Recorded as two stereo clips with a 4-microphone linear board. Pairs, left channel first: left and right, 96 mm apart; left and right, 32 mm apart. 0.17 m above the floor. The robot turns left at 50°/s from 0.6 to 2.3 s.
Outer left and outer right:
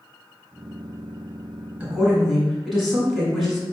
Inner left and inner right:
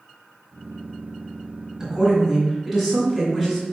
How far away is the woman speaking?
About 1.9 m.